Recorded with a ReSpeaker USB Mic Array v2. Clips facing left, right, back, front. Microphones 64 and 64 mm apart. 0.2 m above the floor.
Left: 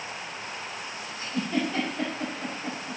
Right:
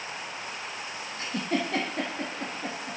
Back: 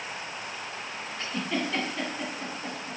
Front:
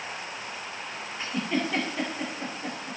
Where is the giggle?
80° right, 3 m.